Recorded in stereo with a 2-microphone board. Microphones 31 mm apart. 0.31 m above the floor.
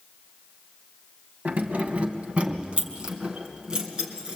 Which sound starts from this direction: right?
Keys jangling, at 1.4 s.